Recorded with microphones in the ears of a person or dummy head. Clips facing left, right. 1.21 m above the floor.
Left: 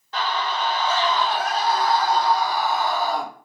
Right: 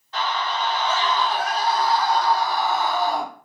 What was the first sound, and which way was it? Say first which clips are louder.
A scream: even; 55° left (ahead or behind).